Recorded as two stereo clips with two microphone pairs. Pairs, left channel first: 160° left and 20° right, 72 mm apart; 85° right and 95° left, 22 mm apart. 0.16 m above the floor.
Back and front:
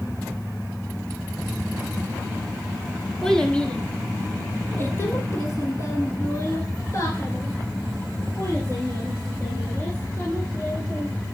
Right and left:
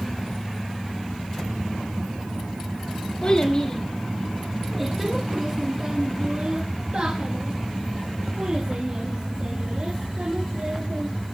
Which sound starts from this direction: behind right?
A child speaking, at 3.2 s.